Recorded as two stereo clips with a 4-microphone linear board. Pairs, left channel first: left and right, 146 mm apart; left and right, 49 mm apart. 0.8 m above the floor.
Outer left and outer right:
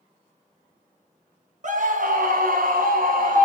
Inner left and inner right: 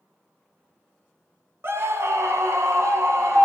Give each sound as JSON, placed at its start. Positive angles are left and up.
{"t": 1.6, "sound": "a scream", "side_deg": -55, "distance_m": 1.0}